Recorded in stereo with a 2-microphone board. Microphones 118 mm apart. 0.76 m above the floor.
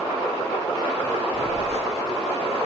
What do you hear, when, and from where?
1.3 s a phone buzzing: 65° right (ahead or behind), 1.5 m